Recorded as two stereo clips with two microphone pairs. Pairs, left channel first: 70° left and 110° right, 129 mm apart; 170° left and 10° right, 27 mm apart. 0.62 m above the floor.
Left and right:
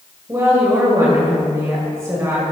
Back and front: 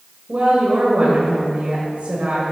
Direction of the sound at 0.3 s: 45° right.